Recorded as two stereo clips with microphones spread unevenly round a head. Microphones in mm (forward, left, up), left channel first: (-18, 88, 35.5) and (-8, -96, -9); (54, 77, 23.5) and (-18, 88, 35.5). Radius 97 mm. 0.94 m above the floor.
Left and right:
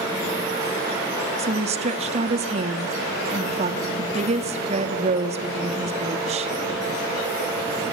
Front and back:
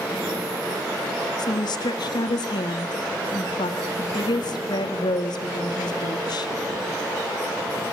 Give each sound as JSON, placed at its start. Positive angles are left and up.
{"t": 1.4, "sound": "a woman speaking", "azimuth_deg": -35, "distance_m": 1.3}